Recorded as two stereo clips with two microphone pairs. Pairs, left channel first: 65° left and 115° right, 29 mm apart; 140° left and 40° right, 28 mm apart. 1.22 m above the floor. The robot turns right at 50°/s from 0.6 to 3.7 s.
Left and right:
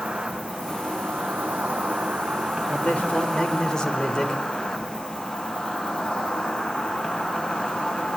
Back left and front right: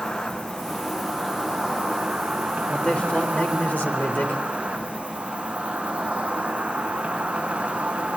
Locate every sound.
0.0 s an insect: 140° right, 8.5 m; by 8.2 s 15° left, 8.5 m
2.7 s a man speaking: 80° left, 4 m; by 4.4 s 135° left, 4 m